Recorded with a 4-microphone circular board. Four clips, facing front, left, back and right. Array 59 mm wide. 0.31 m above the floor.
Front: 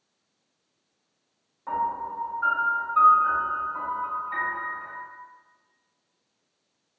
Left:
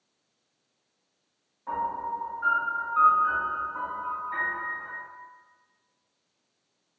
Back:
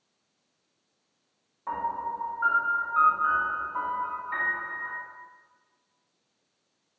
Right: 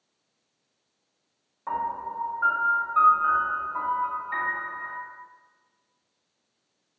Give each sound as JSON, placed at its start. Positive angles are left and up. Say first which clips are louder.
{"t": 1.7, "sound": "a piano", "louder": "even, front 3 dB", "azimuth_deg": -90, "distance_m": 1.2}